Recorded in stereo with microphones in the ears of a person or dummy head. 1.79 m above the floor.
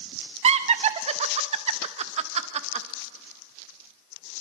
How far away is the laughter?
About 0.5 m.